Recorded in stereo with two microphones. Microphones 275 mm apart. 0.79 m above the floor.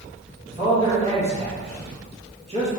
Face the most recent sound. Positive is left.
turn(degrees=-20)  # may be behind; listen again after turning